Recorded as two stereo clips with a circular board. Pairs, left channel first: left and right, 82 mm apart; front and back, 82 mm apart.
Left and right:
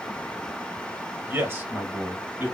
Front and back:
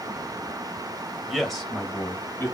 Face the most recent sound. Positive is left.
turn(degrees=-35)